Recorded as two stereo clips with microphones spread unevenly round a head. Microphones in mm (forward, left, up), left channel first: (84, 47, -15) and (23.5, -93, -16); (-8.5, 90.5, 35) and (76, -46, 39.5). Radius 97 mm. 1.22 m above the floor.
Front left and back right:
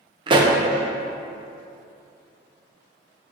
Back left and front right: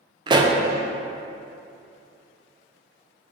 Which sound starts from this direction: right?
A pop, at 0.3 s.